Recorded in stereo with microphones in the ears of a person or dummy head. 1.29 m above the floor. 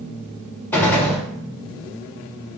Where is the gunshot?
10° left (ahead or behind), 0.7 m.